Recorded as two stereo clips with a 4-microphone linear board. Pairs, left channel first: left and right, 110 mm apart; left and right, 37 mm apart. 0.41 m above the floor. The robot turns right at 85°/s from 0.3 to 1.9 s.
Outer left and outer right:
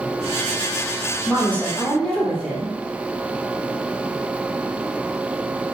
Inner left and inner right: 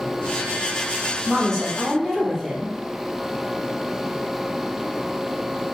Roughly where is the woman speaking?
Centre.